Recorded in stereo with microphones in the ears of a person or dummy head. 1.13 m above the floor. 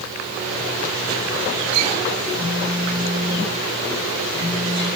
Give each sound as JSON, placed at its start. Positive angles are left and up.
{"t": 2.3, "sound": "a phone buzzing", "side_deg": -25, "distance_m": 5.5}